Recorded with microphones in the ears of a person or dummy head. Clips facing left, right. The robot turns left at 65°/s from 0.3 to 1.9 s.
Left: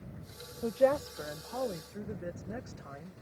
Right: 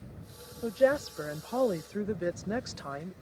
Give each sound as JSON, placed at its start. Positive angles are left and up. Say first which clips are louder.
{"t": 0.6, "sound": "a woman speaking", "louder": "right 1 dB", "azimuth_deg": 10}